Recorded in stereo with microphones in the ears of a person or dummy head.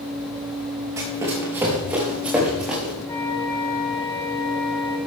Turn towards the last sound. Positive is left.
turn(degrees=15)  # may be behind; listen again after turning